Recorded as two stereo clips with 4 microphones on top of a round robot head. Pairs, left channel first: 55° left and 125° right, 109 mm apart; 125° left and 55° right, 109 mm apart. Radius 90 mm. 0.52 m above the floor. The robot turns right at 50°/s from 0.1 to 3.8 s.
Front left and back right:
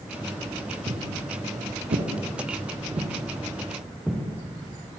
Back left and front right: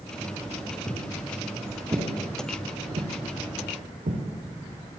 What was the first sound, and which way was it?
Footsteps, 170° right.